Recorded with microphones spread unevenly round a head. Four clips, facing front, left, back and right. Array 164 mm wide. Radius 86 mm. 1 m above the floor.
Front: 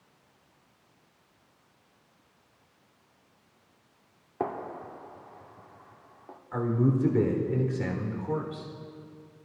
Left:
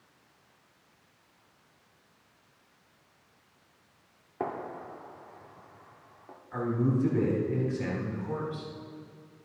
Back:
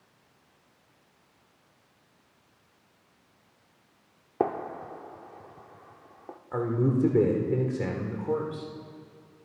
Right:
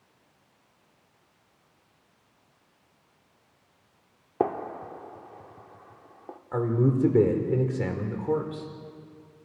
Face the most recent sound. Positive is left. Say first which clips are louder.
# right 4 dB, even
turn(degrees=-120)